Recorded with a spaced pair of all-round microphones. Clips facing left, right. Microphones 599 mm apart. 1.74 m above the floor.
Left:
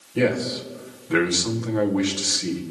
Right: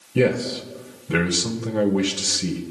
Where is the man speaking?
55° right (ahead or behind), 1.6 m.